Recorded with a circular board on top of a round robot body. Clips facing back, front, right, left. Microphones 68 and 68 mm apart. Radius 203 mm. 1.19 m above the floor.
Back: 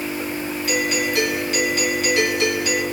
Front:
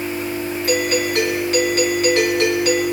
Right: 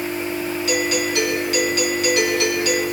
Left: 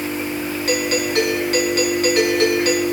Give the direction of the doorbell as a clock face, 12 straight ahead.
11 o'clock.